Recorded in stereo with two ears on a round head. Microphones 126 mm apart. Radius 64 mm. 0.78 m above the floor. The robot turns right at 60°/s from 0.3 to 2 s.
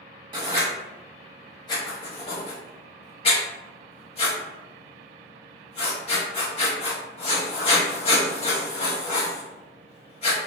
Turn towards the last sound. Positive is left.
turn(degrees=40)  # may be behind; listen again after turning